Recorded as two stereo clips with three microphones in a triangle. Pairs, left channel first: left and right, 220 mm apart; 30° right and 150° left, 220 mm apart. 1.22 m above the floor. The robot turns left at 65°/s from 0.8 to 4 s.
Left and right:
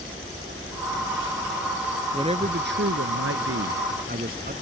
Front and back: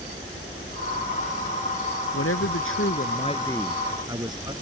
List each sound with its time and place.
2.1 s a man speaking: 15° right; by 4.5 s 140° right